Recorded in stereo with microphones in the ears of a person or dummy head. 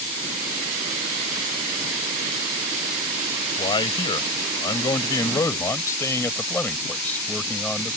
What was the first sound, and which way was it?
A man speaking, 30° left (ahead or behind).